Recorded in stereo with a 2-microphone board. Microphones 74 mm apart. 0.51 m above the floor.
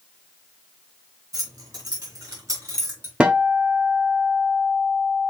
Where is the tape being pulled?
No tape being pulled in this recording.